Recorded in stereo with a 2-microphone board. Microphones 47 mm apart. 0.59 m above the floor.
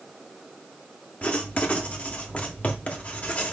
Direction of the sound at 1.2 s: 30° left (ahead or behind).